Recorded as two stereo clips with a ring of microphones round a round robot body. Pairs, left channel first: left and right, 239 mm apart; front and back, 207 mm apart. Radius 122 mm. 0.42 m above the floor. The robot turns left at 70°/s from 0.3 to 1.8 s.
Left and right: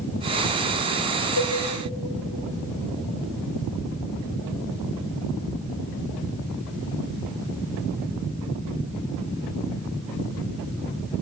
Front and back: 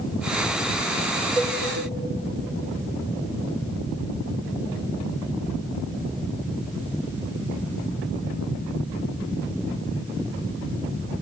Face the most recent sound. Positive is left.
turn(degrees=80)